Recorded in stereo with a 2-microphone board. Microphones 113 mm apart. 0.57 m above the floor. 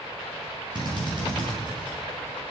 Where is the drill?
40° right (ahead or behind), 6.5 m.